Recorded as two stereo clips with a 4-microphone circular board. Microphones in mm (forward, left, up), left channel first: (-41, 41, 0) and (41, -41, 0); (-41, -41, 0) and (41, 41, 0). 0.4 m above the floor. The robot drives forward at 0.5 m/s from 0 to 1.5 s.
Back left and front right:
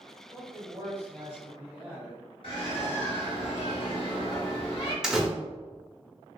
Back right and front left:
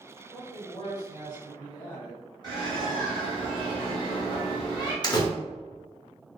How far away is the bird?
About 1.7 m.